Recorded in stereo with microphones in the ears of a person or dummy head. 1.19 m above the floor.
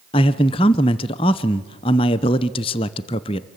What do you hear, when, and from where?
0.1 s a man speaking: 25° left (ahead or behind), 0.7 m